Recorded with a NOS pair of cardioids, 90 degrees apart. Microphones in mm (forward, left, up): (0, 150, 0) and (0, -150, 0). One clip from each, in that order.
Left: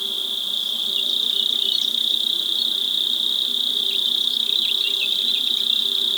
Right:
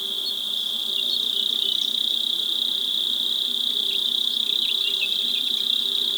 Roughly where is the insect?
Ahead.